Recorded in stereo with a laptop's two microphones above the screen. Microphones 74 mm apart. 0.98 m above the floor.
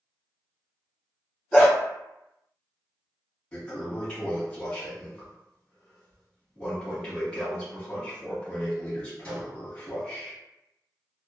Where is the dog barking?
Centre (ahead or behind), 1.4 m.